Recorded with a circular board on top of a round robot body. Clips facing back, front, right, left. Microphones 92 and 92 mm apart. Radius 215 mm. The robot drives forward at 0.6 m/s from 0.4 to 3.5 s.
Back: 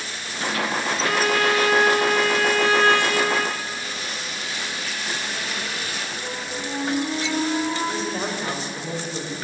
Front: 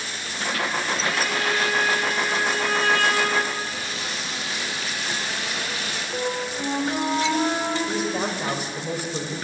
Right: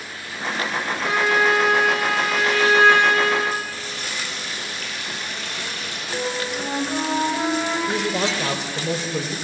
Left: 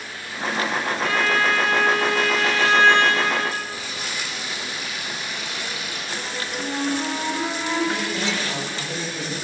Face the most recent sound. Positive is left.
turn(degrees=-80)